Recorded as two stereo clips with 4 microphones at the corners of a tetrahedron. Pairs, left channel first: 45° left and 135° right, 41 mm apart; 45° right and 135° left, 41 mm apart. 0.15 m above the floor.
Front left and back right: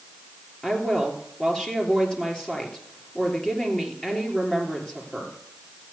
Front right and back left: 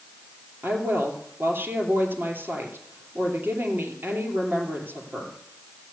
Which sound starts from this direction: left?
A woman speaking, at 0.6 s.